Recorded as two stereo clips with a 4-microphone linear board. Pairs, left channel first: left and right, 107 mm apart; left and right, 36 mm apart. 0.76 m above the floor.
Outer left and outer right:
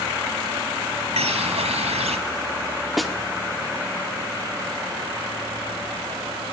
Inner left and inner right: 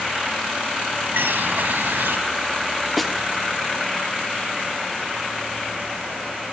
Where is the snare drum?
Centre (ahead or behind), 1.7 m.